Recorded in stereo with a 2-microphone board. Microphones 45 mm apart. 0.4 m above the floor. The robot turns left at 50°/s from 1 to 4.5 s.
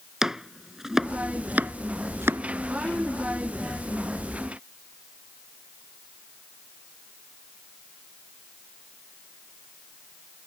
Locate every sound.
0.2 s chopping: 10° right (ahead or behind); by 2.4 s 80° right